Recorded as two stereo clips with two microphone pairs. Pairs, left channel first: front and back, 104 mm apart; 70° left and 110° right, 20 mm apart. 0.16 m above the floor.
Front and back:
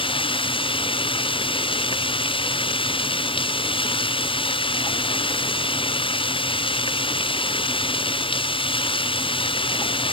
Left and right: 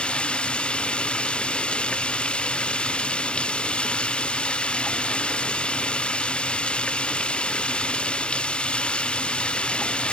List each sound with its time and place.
0.0 s running water: 35° left